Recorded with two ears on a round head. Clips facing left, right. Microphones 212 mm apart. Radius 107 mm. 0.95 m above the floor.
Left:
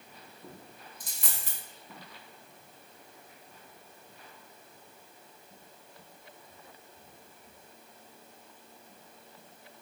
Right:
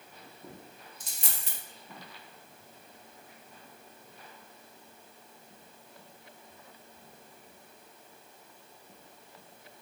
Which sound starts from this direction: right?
A dropped coin, at 1.0 s.